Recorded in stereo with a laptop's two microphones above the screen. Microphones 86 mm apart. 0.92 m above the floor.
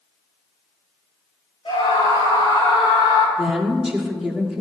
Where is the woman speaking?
5° right (ahead or behind), 1.7 m.